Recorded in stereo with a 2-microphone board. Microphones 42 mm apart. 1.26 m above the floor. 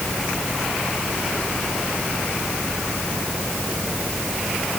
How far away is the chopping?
I don't hear chopping.